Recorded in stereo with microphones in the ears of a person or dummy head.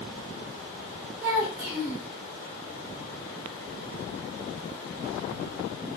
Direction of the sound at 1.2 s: 5° right (ahead or behind).